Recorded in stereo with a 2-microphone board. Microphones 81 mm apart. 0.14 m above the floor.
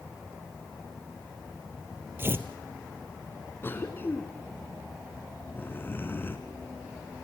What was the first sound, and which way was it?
Tearing paper, 30° right (ahead or behind).